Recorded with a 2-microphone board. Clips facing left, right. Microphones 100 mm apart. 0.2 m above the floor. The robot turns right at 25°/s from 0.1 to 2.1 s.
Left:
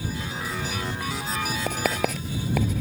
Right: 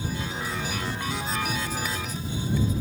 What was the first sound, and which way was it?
Writing, 60° left (ahead or behind).